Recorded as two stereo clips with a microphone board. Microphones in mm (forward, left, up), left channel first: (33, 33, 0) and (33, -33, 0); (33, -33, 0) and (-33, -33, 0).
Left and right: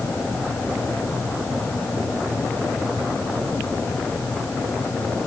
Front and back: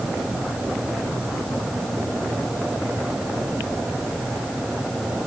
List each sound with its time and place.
Only background noise.